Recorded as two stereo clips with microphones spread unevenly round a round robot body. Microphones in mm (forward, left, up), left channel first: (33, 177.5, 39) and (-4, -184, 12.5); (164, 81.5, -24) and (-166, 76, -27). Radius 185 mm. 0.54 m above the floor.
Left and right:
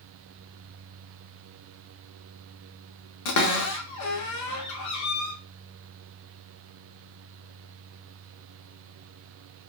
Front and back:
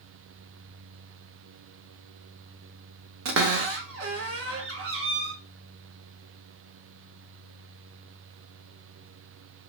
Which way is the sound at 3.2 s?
130° left.